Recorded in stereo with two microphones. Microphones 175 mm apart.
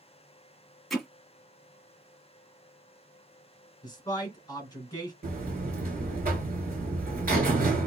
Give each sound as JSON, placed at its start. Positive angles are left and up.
{"t": 0.9, "sound": "hammering", "side_deg": 0, "distance_m": 0.9}
{"t": 3.8, "sound": "a man speaking", "side_deg": 20, "distance_m": 1.5}
{"t": 5.2, "sound": "a buzzer", "side_deg": -60, "distance_m": 1.0}